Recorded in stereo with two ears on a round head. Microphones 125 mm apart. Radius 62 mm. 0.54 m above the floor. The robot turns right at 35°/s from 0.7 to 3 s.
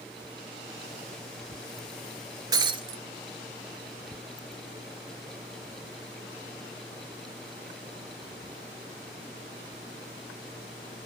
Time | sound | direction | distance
2.5 | breaking glass | 30° right (ahead or behind) | 1.3 m